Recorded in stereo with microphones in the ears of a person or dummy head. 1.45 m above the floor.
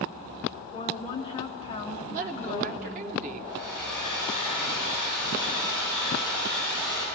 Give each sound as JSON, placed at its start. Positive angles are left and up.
{"t": 0.7, "sound": "a woman speaking", "side_deg": 35, "distance_m": 1.3}
{"t": 2.1, "sound": "a woman speaking", "side_deg": -50, "distance_m": 0.9}
{"t": 3.5, "sound": "a hair dryer", "side_deg": -15, "distance_m": 7.0}